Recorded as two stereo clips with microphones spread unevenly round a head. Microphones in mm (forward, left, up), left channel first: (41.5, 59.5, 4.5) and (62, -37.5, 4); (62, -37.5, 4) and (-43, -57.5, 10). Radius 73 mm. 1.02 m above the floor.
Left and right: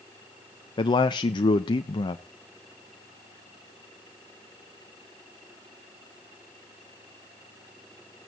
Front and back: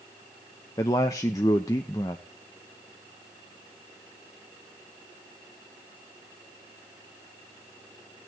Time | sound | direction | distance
0.8 | a man speaking | 70° left | 0.8 m